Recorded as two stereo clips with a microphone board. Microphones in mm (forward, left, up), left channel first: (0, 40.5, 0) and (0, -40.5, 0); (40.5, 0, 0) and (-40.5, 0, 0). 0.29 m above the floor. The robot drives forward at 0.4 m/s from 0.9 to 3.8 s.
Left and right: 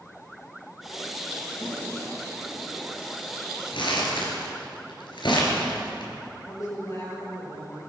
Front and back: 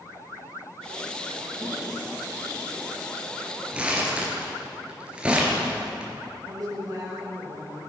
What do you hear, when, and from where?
1.6 s a toilet flushing: 40° left, 6.5 m; by 2.9 s 45° left, 6 m
3.7 s crumpling: 100° left, 3.5 m
6.5 s a woman speaking: 135° left, 6 m